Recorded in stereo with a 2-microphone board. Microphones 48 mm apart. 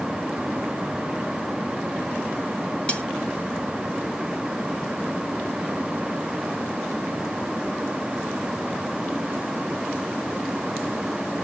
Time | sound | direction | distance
2.9 | cutlery clinking | 25° left (ahead or behind) | 1.5 m